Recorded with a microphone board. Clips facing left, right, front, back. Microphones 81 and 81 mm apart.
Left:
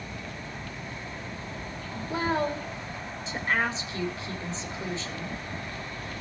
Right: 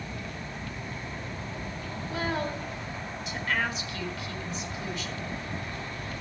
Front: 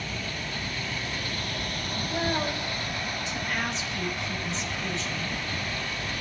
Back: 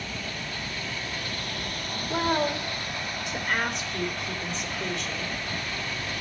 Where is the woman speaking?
150° left, 3.5 m.